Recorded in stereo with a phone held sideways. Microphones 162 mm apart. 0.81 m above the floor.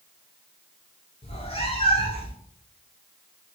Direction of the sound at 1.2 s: 40° left (ahead or behind).